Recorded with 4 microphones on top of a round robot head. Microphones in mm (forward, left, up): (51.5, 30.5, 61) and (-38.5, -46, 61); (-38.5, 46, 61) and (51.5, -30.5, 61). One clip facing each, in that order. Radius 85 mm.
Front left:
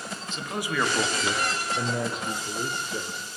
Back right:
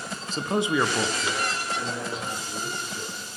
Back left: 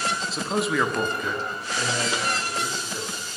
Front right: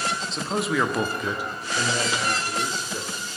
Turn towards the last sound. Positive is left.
turn(degrees=35)